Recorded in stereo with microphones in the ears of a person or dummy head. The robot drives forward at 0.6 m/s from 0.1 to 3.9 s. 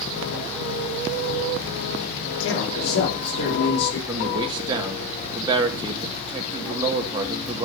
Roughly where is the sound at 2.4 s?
Left.